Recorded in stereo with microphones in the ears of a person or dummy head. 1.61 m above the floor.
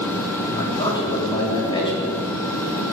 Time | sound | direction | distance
0.6 | a man speaking | 30° left (ahead or behind) | 4.5 m